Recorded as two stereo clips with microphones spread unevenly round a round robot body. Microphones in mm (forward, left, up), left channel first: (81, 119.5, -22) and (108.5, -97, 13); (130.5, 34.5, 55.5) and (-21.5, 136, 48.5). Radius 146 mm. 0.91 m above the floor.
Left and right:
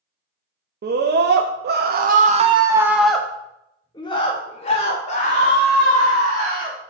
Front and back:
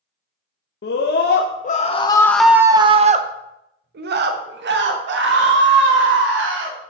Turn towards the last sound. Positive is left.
turn(degrees=160)